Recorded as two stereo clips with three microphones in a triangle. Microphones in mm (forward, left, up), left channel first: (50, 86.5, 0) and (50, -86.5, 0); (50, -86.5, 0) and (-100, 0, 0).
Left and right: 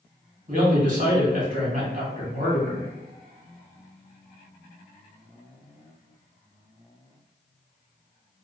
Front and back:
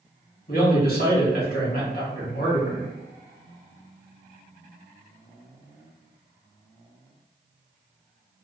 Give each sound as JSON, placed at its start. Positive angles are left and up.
{"t": 0.5, "sound": "a man speaking", "azimuth_deg": -55, "distance_m": 1.6}